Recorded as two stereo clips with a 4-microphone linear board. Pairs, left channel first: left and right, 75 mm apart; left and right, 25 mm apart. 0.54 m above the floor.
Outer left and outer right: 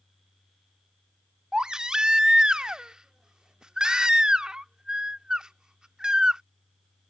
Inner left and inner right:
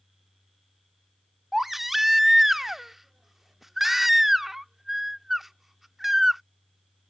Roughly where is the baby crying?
Centre.